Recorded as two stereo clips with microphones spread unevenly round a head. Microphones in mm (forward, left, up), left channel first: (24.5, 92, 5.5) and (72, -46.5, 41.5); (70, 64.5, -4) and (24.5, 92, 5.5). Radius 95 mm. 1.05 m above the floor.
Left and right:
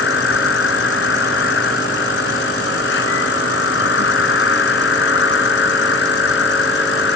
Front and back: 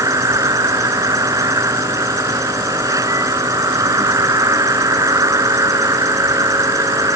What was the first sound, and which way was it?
An insect, 140° left.